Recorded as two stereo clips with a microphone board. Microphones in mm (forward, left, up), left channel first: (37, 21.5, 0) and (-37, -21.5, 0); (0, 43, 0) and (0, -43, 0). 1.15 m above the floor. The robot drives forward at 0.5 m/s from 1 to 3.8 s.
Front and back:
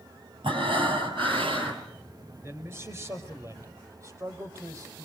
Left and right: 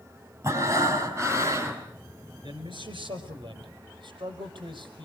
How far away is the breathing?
About 5 m.